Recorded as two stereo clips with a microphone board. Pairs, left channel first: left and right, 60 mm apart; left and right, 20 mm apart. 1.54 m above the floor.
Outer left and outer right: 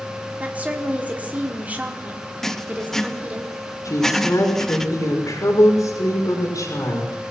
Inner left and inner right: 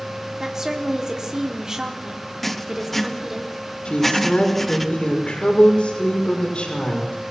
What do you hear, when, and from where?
0.4 s a woman speaking: 25° right (ahead or behind), 4 m
2.4 s writing: 5° left (ahead or behind), 1.4 m
3.9 s a woman speaking: 85° left, 6 m